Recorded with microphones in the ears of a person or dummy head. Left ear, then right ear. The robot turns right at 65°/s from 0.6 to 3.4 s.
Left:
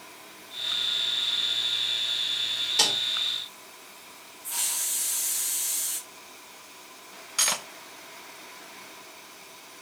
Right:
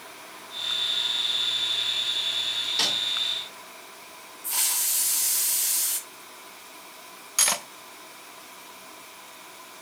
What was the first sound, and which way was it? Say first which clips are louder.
A snare drum: left 2 dB; 25° left (ahead or behind).